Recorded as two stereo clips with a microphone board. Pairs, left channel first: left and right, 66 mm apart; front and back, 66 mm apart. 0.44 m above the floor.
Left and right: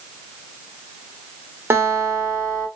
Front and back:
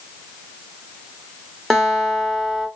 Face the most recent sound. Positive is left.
turn(degrees=-80)